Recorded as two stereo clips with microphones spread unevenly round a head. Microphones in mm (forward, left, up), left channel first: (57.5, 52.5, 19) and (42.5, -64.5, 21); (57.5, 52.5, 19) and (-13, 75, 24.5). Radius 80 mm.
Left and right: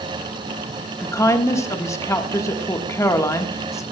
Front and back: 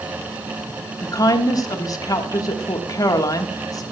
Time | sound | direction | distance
1.0 | a woman speaking | 20° left | 1.5 m